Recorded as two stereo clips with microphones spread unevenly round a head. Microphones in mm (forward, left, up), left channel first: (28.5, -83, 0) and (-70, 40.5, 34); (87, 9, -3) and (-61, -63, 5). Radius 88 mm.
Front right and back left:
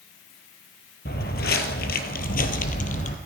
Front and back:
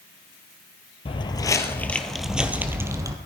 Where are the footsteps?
25° right, 1.2 m; by 3.1 s 95° right, 1.5 m.